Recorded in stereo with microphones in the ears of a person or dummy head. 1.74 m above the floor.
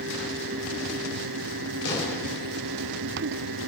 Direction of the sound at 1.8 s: 70° left (ahead or behind).